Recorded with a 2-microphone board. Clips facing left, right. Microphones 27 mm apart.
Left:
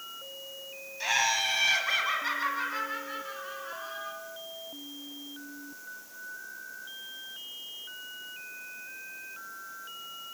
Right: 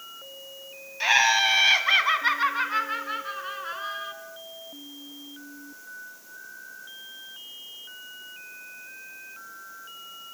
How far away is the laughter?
About 2 m.